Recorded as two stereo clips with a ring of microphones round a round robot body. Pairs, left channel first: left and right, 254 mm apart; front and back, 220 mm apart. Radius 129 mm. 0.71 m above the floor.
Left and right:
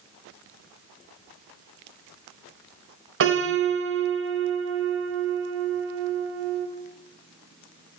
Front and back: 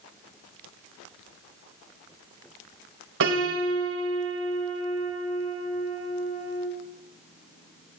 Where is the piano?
135° right, 2.5 m.